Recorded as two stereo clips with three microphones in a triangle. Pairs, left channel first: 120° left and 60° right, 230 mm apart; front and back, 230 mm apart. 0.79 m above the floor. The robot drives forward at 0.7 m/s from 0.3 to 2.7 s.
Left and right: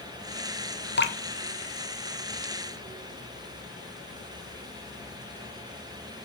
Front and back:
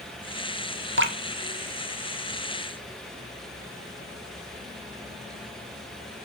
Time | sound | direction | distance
1.0 | dripping | 155° left | 1.1 m